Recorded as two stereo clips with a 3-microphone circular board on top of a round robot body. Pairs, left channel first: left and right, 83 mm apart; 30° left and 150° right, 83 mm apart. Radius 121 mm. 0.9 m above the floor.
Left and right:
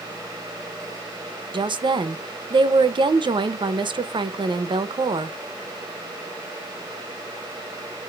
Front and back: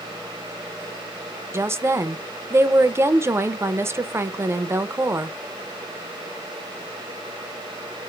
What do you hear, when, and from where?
1.5 s a woman speaking: 90° right, 0.6 m